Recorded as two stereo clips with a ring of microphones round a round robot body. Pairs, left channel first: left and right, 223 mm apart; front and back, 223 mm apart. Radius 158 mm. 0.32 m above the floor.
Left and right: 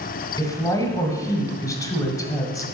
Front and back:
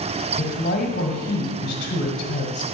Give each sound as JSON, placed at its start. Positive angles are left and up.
{"t": 0.4, "sound": "a woman speaking", "azimuth_deg": 25, "distance_m": 1.4}